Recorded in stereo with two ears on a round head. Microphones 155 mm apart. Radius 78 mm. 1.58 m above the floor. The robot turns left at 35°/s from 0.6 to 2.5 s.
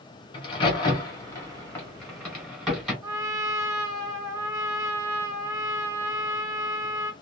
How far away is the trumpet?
About 0.8 m.